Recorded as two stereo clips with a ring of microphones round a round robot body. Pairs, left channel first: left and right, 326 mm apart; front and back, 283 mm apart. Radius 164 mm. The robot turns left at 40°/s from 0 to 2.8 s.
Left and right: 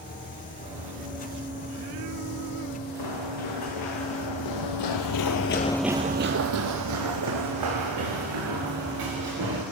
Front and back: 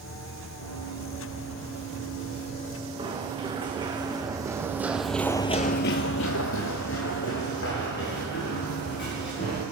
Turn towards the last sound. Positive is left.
turn(degrees=-65)